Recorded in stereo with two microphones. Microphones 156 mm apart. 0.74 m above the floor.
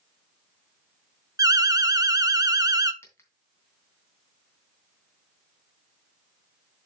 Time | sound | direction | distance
1.4 | an alarm | 25° right (ahead or behind) | 0.6 m
3.0 | a dropped coin | 15° left (ahead or behind) | 2.5 m